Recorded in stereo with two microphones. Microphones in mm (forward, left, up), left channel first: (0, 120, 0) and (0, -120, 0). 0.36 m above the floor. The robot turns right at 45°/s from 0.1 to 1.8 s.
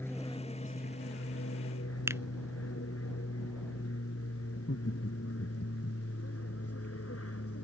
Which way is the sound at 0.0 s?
10° left (ahead or behind).